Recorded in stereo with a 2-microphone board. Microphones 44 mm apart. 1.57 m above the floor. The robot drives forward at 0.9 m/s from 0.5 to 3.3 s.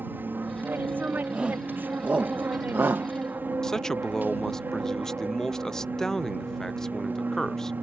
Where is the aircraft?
50° right (ahead or behind); by 7.8 s 45° right (ahead or behind).